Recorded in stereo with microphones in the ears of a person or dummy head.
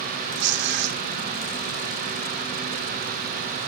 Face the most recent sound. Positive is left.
turn(degrees=-70)  # may be behind; listen again after turning